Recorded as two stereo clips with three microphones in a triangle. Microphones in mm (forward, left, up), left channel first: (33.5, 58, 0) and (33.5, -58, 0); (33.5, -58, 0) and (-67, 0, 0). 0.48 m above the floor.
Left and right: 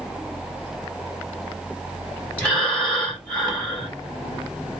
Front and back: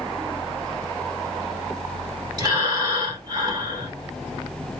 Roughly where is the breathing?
Behind.